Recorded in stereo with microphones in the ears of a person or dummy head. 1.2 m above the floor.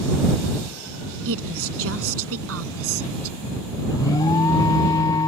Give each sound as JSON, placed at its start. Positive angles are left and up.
{"t": 1.2, "sound": "a woman speaking", "side_deg": -75}
{"t": 3.9, "sound": "an alarm", "side_deg": 20}